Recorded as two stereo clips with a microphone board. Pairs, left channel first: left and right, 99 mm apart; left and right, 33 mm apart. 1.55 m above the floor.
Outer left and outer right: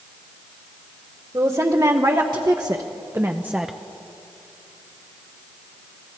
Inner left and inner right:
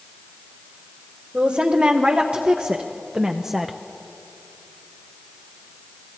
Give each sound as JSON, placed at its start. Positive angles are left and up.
{"t": 1.3, "sound": "a woman speaking", "side_deg": -45, "distance_m": 1.9}